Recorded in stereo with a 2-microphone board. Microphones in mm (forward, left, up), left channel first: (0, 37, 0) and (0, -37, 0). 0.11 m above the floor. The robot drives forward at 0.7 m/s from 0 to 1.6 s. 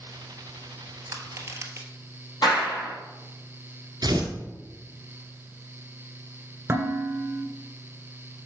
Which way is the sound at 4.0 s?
55° right (ahead or behind).